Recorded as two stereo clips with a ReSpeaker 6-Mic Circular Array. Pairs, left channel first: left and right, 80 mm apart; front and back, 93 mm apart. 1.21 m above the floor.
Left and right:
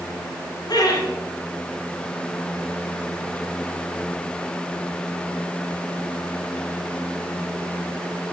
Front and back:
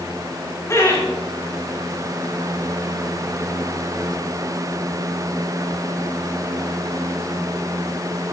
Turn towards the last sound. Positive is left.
turn(degrees=55)